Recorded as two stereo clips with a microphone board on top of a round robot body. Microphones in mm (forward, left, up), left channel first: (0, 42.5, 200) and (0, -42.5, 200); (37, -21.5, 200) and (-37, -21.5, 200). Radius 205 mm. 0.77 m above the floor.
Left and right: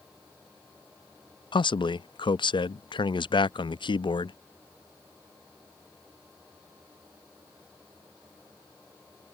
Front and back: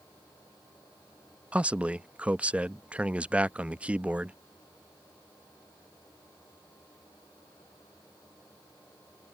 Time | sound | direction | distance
1.5 | a man speaking | 110° left | ?